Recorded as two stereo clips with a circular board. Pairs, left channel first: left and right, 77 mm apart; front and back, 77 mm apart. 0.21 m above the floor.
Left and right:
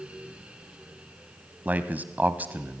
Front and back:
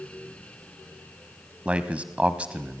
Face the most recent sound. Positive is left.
turn(degrees=-125)